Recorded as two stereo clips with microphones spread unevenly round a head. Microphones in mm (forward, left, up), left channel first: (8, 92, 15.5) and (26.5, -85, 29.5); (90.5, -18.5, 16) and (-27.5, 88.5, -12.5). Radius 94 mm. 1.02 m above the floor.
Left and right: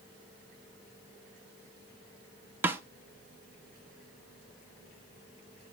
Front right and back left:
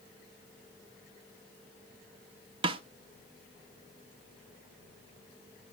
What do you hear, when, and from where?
2.6 s a snare drum: 155° right, 0.6 m